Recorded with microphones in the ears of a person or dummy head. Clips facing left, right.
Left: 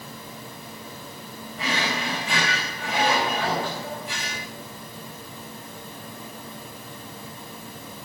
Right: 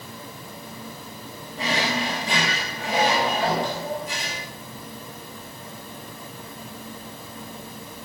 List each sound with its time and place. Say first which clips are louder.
1.6 s a drawer: right 3 dB; 30° right (ahead or behind), 4.5 m